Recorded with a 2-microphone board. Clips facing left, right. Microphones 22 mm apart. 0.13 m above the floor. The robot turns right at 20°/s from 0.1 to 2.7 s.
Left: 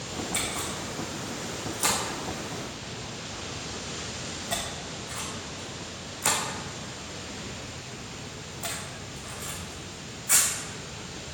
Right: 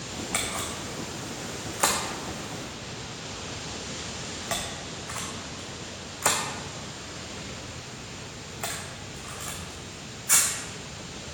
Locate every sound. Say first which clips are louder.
0.3 s a camera shutter: right 2 dB; 70° right (ahead or behind), 3 m; by 10.5 s 60° right (ahead or behind), 3 m